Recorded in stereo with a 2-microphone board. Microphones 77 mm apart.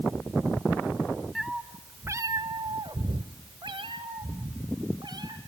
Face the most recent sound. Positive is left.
turn(degrees=-60)  # may be behind; listen again after turning